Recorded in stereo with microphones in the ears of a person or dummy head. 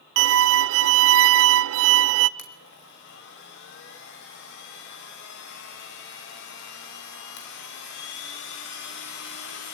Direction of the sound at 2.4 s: 75° left (ahead or behind).